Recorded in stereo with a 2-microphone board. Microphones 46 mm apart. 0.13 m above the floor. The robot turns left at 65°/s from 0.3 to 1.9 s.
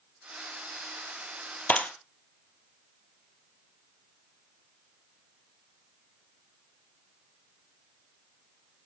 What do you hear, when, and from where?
1.7 s a clap: 35° left (ahead or behind), 2.5 m; by 1.9 s 25° left (ahead or behind), 2.5 m